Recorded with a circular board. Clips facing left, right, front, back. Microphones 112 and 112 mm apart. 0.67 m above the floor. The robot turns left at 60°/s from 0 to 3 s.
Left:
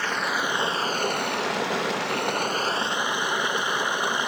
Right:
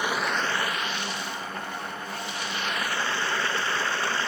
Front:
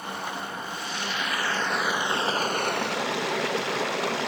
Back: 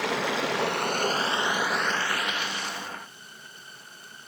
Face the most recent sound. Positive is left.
turn(degrees=15)